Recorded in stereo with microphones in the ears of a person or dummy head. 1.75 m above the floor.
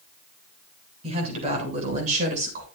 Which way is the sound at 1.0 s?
40° right (ahead or behind).